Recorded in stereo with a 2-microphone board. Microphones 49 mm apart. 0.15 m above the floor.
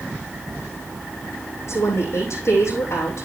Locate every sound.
1.7 s a woman speaking: 70° left (ahead or behind), 7 m